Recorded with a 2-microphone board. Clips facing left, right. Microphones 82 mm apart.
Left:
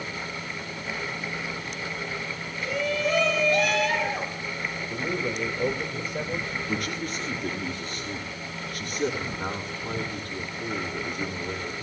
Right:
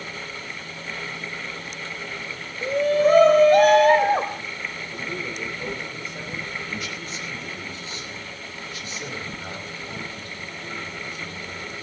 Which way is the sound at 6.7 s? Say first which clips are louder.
Left 3 dB; 55° left (ahead or behind).